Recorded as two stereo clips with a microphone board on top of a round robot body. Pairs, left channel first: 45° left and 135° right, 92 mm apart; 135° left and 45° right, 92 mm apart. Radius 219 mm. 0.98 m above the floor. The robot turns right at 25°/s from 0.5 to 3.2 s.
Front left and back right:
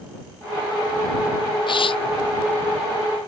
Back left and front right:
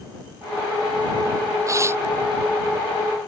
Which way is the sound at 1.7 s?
10° left.